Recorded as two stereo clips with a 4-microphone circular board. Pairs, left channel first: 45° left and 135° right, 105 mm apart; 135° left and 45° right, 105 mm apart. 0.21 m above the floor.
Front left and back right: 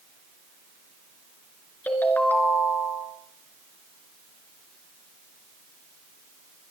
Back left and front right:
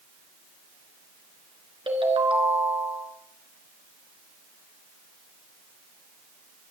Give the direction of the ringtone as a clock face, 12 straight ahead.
1 o'clock.